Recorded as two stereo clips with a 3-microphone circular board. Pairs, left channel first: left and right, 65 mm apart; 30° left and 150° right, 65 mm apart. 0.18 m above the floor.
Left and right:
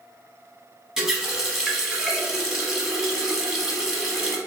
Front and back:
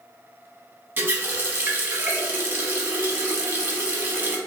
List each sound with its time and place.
1.0 s a running tap: 170° right, 0.8 m